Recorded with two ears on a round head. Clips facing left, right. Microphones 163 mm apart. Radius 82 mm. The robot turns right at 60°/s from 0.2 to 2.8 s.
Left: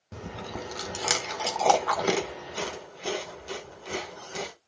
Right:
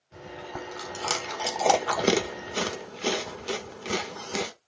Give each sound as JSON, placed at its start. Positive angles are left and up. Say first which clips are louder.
{"t": 0.1, "sound": "chewing", "louder": "left 1 dB", "side_deg": 65, "distance_m": 1.6}